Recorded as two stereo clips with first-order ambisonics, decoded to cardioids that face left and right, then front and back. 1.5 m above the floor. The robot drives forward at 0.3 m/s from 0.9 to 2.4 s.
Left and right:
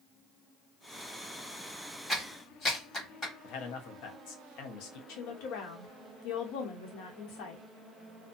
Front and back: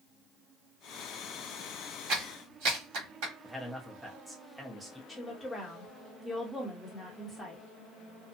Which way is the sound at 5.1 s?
85° left.